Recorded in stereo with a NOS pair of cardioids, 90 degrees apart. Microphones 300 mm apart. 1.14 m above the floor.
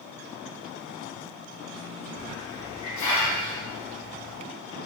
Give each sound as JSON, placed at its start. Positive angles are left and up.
{"t": 2.2, "sound": "a hiss", "azimuth_deg": 70, "distance_m": 1.5}